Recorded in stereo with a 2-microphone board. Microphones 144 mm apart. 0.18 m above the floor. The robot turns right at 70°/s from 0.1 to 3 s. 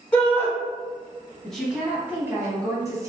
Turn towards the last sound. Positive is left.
turn(degrees=-25)  # may be behind; listen again after turning